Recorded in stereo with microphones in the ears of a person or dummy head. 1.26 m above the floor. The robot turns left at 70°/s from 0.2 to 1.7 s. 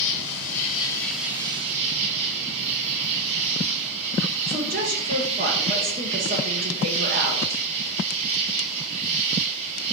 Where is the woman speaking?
40° right (ahead or behind), 0.9 m.